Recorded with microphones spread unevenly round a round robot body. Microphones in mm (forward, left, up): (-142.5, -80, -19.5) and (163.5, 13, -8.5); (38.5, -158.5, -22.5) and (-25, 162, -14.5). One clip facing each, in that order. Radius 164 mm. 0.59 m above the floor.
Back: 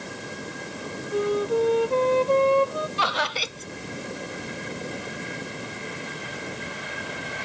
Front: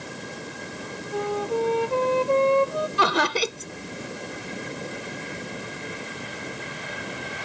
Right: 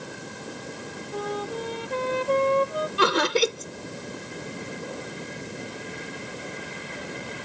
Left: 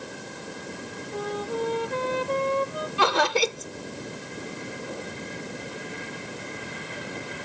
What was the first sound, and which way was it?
A flute, 95° right.